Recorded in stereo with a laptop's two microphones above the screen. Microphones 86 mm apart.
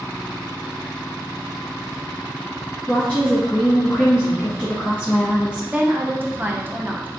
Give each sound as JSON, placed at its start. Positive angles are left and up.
{"t": 2.9, "sound": "a woman speaking", "side_deg": 10, "distance_m": 1.6}
{"t": 5.7, "sound": "a woman speaking", "side_deg": -25, "distance_m": 0.6}